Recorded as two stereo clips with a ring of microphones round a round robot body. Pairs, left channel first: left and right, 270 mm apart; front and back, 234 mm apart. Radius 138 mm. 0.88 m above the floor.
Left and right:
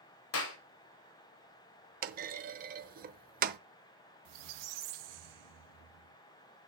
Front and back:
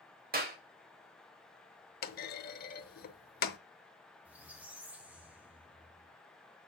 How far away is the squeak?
About 1.1 m.